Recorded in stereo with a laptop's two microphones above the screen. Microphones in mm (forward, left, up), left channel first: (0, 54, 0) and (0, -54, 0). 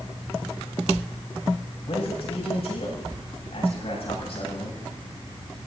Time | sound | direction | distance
1.9 | a man speaking | 60° left (ahead or behind) | 7.5 m